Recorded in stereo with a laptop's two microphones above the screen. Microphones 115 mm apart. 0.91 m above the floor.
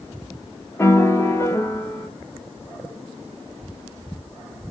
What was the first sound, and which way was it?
A piano, 20° left (ahead or behind).